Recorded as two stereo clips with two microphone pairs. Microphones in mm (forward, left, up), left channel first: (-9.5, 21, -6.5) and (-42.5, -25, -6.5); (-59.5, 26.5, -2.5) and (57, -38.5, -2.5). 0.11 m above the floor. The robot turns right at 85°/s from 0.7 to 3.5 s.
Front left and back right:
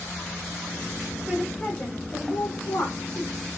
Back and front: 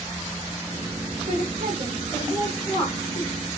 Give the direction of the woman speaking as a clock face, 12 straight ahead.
1 o'clock.